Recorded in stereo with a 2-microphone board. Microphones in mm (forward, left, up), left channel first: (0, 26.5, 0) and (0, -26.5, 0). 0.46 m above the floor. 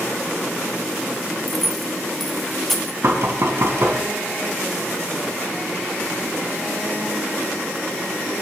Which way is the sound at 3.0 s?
60° right (ahead or behind).